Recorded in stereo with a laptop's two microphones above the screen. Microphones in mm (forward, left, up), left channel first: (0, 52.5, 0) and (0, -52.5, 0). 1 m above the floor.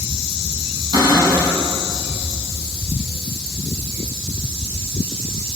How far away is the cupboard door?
About 9 m.